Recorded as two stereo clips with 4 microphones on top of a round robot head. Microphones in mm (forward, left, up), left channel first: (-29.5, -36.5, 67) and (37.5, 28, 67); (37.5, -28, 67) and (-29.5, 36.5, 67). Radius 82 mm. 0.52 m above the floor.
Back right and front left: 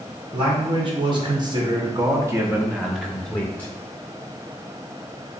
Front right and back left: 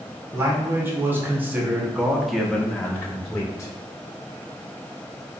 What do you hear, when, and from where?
0.3 s a man speaking: 75° left, 1.7 m; by 3.7 s 75° right, 1.0 m